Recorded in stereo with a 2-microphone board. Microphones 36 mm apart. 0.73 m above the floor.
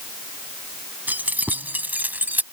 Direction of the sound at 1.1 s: 55° right (ahead or behind).